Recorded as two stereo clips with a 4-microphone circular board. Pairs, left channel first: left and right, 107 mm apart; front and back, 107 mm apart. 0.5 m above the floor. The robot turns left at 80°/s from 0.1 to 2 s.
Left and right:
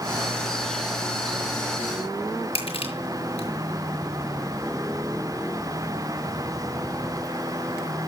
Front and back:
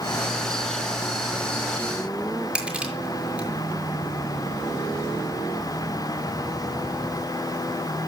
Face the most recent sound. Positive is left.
turn(degrees=100)